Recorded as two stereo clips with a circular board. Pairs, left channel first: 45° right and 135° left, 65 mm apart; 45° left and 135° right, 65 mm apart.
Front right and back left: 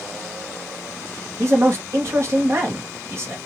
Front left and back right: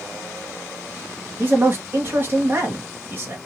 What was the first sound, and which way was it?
A man speaking, 175° left.